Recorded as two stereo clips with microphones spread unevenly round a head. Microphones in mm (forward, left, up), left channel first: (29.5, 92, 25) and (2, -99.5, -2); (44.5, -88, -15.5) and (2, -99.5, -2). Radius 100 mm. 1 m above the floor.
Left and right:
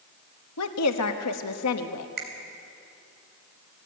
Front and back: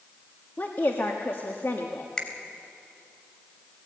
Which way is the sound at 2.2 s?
60° right.